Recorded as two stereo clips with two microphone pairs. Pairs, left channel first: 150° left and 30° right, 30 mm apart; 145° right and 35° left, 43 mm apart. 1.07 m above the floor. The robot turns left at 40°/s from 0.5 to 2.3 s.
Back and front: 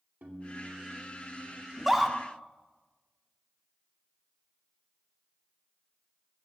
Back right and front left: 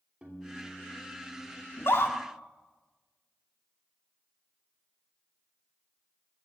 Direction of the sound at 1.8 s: 110° right.